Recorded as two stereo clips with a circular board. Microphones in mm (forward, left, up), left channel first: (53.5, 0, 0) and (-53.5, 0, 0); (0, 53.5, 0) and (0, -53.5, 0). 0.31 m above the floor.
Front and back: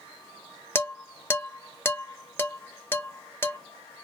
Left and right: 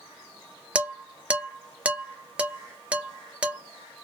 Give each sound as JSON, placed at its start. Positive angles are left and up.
{"t": 0.8, "sound": "dishes clattering", "azimuth_deg": -30, "distance_m": 0.5}